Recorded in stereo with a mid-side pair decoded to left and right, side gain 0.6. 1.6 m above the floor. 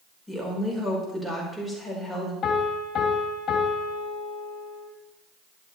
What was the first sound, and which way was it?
A woman speaking, 5° right.